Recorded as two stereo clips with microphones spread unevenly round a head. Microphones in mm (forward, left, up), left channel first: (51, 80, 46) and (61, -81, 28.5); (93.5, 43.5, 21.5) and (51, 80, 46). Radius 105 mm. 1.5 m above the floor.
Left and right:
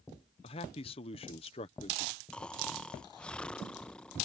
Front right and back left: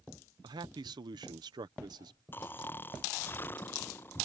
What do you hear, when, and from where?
0.4 s a man speaking: 155° left
2.3 s snoring: 30° left